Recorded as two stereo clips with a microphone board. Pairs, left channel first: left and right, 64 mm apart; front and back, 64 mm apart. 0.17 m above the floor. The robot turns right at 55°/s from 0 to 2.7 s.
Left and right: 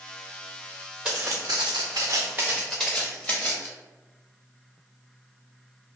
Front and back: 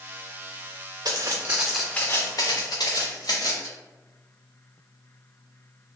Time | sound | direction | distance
1.1 | footsteps | 170° right | 0.7 m